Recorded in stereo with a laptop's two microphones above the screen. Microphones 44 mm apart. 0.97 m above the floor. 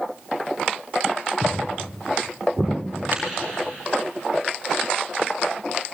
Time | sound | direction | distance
1.4 | footsteps | 30° right (ahead or behind) | 5 m
3.1 | tapping | 45° right (ahead or behind) | 5.5 m